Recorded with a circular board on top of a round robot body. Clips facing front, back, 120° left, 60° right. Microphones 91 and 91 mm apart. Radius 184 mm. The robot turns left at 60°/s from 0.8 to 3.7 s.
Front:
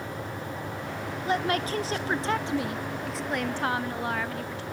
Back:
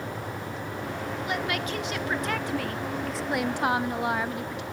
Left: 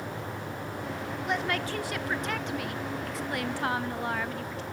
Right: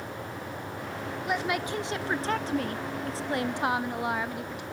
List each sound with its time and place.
1.2 s a woman speaking: 25° left, 1.1 m; by 4.6 s 120° right, 1.1 m